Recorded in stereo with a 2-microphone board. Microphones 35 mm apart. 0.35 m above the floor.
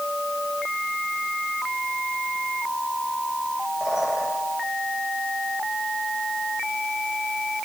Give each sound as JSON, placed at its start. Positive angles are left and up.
{"t": 3.8, "sound": "a bird", "side_deg": -20, "distance_m": 8.0}